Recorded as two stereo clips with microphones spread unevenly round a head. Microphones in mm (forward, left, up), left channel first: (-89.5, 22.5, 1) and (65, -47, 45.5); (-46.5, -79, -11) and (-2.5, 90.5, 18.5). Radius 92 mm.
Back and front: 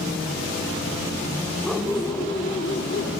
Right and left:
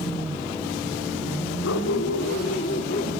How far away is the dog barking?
About 2.5 m.